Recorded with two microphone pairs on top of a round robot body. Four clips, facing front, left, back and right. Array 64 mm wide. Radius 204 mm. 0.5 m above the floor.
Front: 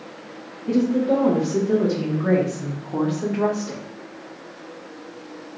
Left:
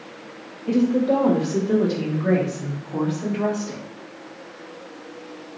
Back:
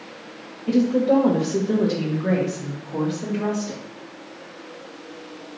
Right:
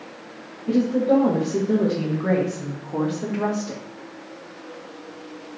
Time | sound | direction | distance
0.7 | a woman speaking | 165° left | 1.5 m